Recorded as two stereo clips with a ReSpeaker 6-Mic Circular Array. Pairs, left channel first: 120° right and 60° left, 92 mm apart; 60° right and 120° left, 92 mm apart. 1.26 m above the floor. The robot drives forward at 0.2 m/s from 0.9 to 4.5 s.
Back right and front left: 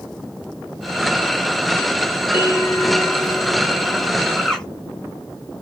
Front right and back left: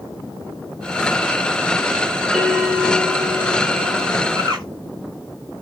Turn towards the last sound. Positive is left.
turn(degrees=160)